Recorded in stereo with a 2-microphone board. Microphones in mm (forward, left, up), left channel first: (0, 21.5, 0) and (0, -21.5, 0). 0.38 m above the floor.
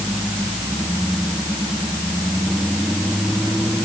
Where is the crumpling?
I don't hear crumpling.